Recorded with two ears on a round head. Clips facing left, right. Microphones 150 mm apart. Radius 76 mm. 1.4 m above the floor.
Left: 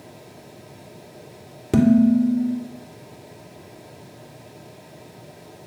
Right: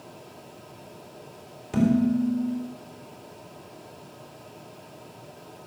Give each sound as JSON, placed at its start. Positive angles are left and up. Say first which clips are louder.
{"t": 1.7, "sound": "dishes clattering", "louder": "left 7 dB", "side_deg": 70, "distance_m": 3.0}